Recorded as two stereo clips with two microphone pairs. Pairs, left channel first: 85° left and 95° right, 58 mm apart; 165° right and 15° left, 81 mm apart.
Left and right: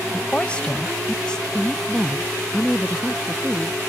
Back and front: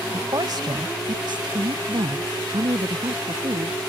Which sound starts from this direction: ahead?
A woman speaking, at 0.1 s.